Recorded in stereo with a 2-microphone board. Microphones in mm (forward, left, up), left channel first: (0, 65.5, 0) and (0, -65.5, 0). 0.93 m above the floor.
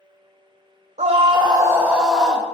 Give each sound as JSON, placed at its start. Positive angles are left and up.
{"t": 1.0, "sound": "a scream", "side_deg": -60, "distance_m": 0.6}